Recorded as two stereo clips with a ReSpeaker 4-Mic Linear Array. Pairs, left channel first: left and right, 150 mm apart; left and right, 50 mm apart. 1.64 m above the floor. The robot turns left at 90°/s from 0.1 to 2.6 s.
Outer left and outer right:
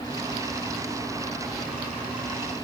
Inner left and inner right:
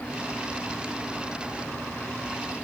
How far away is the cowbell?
I don't hear a cowbell.